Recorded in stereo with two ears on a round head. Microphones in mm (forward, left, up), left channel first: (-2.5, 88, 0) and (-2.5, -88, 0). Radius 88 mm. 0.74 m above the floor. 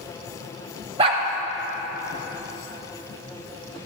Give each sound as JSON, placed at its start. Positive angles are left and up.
{"t": 1.0, "sound": "a dog barking", "side_deg": -30, "distance_m": 0.8}